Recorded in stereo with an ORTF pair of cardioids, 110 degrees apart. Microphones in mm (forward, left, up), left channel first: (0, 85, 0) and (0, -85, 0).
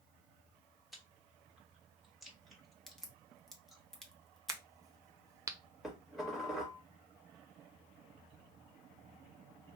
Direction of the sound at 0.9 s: Straight ahead.